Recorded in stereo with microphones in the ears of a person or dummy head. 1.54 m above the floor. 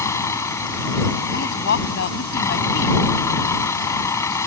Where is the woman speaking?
70° left (ahead or behind).